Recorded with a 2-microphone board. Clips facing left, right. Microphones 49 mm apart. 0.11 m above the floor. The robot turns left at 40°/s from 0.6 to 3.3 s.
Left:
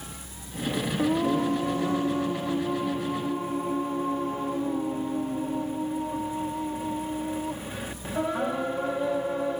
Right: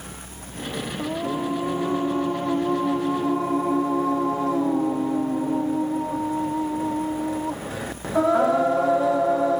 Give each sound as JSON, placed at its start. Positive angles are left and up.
{"t": 1.0, "sound": "singing", "azimuth_deg": 5, "distance_m": 1.2}